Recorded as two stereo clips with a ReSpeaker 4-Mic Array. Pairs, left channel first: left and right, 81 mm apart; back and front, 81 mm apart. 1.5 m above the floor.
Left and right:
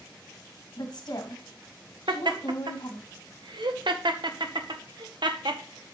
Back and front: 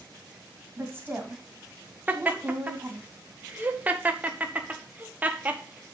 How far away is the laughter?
About 1.0 m.